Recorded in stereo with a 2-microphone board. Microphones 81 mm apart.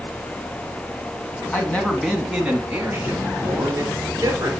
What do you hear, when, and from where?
1.5 s a man speaking: 20° left (ahead or behind), 1.4 m; by 4.5 s 40° right (ahead or behind), 3 m